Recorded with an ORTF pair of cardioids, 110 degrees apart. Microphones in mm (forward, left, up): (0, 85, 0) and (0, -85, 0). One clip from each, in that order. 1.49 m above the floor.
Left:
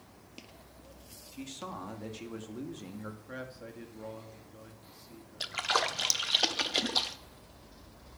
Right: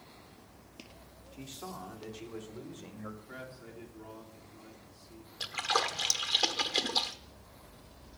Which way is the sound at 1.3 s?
55° left.